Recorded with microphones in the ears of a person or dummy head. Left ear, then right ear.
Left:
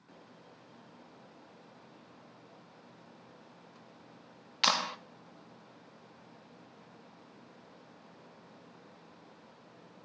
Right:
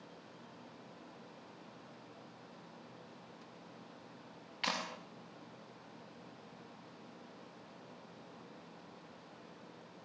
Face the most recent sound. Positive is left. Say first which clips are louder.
# left 9 dB
turn(degrees=55)  # may be behind; listen again after turning